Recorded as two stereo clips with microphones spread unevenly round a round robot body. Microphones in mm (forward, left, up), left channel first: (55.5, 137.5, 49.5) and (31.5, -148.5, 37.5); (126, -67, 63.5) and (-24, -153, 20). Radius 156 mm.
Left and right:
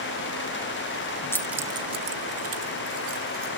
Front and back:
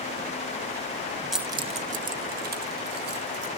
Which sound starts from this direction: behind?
Keys jangling, at 1.3 s.